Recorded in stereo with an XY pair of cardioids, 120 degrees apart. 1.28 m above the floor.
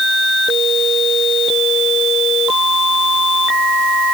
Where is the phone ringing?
No phone ringing in this recording.